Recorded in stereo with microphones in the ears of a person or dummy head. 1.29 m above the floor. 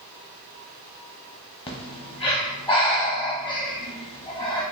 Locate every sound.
1.7 s breathing: 25° left (ahead or behind), 0.8 m